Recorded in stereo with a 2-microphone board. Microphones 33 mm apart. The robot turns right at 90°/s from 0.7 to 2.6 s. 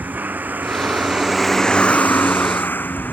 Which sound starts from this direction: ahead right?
A vehicle, at 0.0 s.